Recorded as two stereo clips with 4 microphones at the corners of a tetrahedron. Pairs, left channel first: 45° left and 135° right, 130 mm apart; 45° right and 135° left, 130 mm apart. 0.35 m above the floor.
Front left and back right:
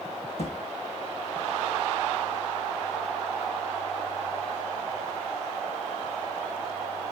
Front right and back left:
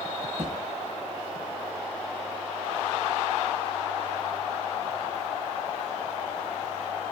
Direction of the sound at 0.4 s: 80° left.